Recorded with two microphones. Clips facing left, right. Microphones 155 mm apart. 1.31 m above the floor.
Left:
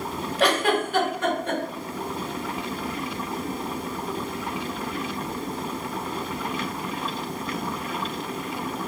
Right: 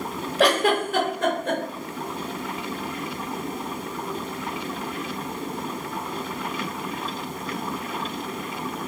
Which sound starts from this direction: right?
A giggle, at 0.4 s.